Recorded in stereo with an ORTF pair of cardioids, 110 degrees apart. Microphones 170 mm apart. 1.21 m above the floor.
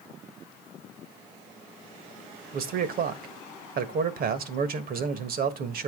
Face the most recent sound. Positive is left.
turn(degrees=-60)